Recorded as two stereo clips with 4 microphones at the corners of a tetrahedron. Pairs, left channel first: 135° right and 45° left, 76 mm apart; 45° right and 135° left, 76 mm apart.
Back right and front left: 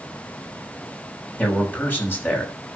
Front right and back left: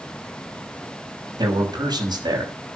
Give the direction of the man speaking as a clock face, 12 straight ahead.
7 o'clock.